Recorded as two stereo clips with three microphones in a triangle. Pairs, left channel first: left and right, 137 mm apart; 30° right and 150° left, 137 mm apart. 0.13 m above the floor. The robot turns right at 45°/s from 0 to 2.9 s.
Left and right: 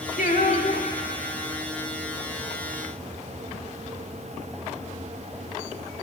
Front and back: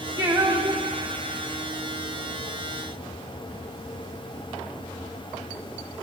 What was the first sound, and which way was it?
Singing, 85° left.